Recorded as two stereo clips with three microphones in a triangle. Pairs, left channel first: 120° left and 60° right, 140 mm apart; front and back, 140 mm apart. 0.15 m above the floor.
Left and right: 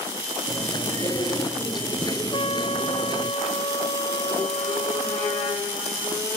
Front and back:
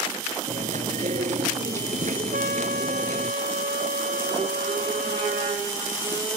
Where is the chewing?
175° left.